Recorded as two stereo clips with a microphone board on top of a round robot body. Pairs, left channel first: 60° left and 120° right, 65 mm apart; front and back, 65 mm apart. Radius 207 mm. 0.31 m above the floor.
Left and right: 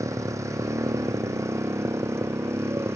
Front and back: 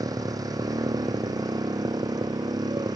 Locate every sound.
0.0 s a motorcycle: 160° right; by 3.0 s 165° right